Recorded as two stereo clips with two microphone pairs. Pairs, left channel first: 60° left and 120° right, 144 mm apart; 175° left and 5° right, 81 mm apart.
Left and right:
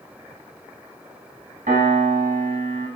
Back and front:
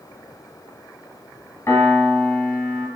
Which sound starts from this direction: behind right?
A piano, at 1.7 s.